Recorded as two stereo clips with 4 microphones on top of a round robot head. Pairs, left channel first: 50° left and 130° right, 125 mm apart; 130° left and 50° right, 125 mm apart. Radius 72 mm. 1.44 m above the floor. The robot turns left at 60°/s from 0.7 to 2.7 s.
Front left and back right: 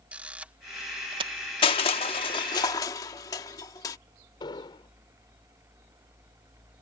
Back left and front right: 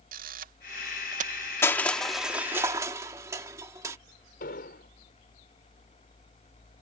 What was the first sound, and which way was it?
A camera shutter, 50° right.